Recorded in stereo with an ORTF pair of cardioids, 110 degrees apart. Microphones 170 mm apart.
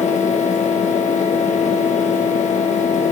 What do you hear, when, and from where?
0.0 s a fan: 45° left, 1.4 m